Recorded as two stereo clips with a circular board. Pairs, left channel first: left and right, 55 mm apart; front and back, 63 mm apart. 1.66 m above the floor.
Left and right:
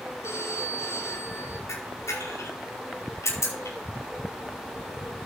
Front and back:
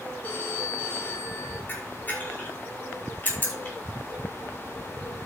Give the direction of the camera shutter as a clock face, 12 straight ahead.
10 o'clock.